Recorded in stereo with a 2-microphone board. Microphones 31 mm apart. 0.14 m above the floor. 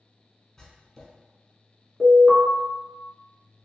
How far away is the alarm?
About 1.5 m.